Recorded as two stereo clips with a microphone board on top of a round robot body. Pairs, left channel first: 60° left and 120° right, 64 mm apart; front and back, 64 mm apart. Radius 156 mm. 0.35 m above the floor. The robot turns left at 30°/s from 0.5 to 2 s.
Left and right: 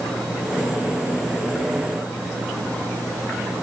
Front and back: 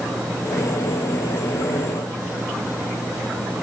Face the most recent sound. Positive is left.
No sound to turn to.